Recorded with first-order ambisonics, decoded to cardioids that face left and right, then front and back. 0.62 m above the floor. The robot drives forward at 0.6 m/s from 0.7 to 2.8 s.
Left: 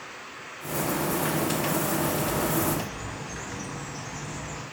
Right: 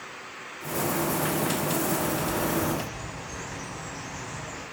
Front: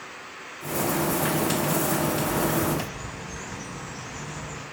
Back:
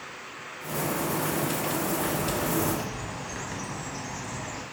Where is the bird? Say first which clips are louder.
Left 1 dB, front 3 dB; 165° right, 0.7 m; by 4.6 s 170° right, 1.2 m.